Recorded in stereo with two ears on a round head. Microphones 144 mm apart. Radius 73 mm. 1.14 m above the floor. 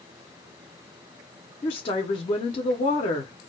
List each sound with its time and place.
1.6 s a woman speaking: 30° left (ahead or behind), 0.6 m